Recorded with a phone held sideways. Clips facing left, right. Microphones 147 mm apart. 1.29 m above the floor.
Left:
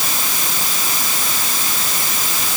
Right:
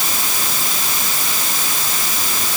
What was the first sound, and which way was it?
Only background noise.